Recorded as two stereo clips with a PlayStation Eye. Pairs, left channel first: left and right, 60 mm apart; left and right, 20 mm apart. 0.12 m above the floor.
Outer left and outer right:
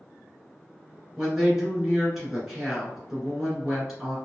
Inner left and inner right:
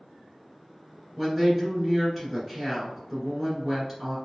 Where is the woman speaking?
5° right (ahead or behind), 1.7 m.